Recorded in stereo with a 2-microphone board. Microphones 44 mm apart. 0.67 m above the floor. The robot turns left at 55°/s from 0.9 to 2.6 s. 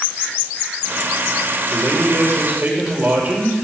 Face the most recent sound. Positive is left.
turn(degrees=-130)